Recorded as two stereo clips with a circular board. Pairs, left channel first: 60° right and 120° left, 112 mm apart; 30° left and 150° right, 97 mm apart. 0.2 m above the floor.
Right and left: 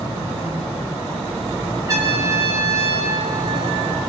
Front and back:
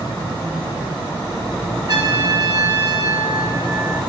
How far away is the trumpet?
About 1.8 m.